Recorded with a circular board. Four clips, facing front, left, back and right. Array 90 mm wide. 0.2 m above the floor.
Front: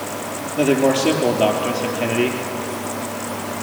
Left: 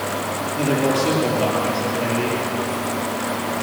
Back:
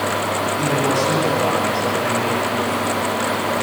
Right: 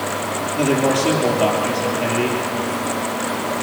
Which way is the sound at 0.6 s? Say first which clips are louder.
Right 2 dB, front 6 dB; 15° right.